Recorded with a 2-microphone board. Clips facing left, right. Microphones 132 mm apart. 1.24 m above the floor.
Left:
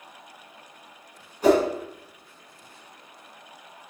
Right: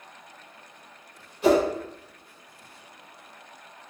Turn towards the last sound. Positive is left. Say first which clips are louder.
# left 1 dB
turn(degrees=45)  # may be behind; listen again after turning